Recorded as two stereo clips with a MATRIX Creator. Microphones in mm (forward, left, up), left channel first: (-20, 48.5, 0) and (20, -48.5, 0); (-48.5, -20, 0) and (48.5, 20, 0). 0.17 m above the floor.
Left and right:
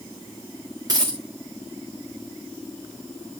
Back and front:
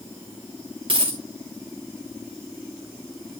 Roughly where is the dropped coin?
Ahead.